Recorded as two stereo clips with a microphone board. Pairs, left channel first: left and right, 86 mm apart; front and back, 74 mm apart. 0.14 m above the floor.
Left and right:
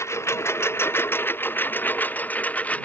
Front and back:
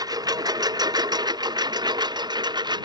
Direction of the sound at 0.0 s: 150° left.